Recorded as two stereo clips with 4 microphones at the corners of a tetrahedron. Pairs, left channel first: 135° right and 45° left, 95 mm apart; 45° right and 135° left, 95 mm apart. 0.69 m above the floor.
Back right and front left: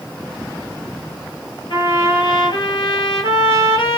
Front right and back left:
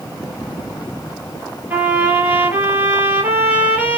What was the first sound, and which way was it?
A trumpet, 155° right.